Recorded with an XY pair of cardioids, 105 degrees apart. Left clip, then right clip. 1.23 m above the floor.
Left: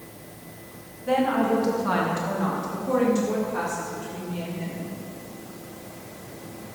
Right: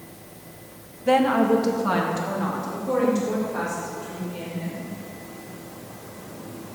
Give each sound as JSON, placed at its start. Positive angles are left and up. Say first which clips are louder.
{"t": 1.1, "sound": "a woman speaking", "louder": "right 4 dB", "azimuth_deg": -55, "distance_m": 1.4}